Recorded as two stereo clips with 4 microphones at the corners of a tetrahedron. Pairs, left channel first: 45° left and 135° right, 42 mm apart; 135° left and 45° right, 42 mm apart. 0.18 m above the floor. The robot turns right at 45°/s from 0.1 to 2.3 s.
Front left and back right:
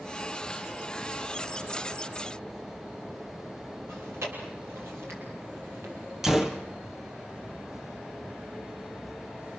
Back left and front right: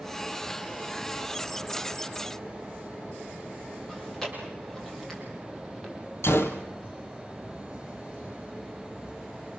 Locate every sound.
3.9 s chewing: 140° right, 6.5 m
6.2 s a gunshot: 145° left, 1.9 m